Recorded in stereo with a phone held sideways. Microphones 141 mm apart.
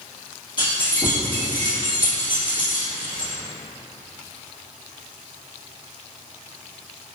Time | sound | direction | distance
0.6 | keys jangling | 35° left (ahead or behind) | 1.1 m